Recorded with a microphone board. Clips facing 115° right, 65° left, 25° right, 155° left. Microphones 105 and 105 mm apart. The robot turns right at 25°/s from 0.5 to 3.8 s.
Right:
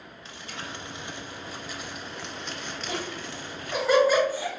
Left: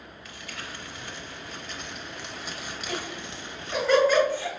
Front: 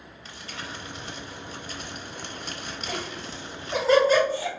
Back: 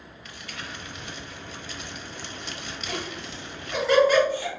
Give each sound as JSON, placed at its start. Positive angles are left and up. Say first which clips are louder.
{"t": 0.2, "sound": "crumpling", "louder": "right 2 dB, front 1 dB", "azimuth_deg": -65, "distance_m": 0.6}
{"t": 2.9, "sound": "laughter", "louder": "right 1 dB, back 1 dB", "azimuth_deg": -65, "distance_m": 1.8}